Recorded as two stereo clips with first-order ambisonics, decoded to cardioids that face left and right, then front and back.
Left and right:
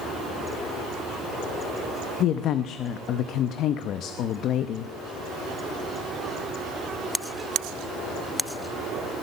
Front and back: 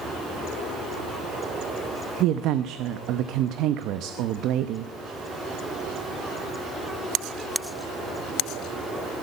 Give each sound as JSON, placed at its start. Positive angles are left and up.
{"t": 2.2, "sound": "a woman speaking", "azimuth_deg": 140, "distance_m": 0.8}